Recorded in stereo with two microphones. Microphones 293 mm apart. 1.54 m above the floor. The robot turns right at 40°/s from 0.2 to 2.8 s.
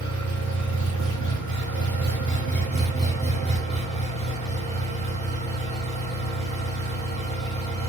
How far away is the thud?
No thud in this recording.